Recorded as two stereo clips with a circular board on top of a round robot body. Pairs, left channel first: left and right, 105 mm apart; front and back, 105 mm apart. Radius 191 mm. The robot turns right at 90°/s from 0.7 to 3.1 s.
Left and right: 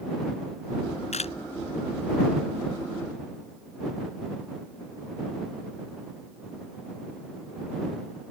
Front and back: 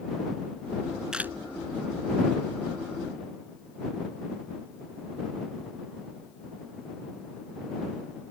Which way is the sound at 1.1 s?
95° left.